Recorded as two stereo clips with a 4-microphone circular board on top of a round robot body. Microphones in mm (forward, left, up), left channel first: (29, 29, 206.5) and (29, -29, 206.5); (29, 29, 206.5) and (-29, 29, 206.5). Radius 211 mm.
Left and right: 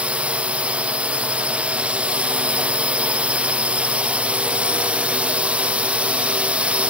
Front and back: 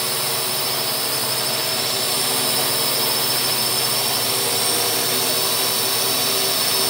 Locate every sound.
0.0 s a drone: 85° right